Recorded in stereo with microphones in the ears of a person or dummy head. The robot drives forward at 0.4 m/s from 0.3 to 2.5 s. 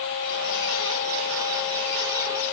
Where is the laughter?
No laughter in this recording.